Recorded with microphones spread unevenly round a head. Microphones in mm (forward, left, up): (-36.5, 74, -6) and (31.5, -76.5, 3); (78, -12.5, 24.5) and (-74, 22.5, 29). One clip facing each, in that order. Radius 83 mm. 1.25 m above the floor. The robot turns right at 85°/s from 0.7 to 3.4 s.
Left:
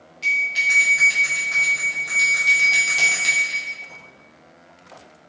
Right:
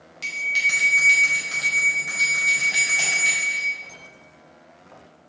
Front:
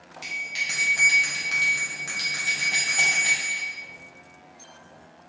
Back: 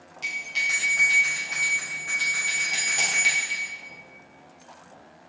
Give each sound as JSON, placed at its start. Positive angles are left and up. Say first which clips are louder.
{"t": 0.2, "sound": "a bell", "louder": "left 3 dB, back 4 dB", "azimuth_deg": -95, "distance_m": 2.5}